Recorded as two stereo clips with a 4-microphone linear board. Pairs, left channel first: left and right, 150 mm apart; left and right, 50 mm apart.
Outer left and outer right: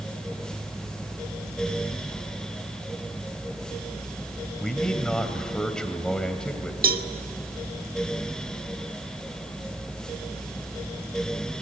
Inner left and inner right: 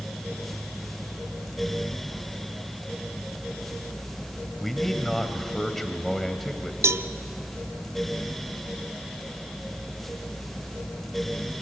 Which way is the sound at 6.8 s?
70° right (ahead or behind).